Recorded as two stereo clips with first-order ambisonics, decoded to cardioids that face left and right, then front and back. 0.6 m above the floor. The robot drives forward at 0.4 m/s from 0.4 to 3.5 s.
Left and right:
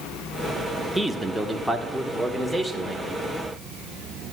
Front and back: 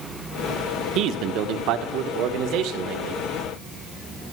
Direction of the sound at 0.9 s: 175° right.